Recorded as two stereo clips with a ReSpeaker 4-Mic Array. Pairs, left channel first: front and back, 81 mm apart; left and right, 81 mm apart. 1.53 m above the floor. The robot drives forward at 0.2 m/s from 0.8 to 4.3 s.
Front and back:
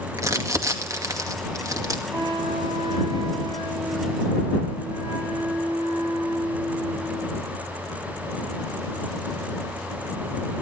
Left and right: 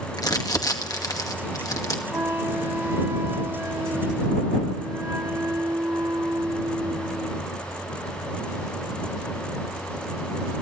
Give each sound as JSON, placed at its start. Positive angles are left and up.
{"t": 0.2, "sound": "crumpling", "azimuth_deg": 130, "distance_m": 2.0}
{"t": 2.1, "sound": "a flute", "azimuth_deg": -150, "distance_m": 3.5}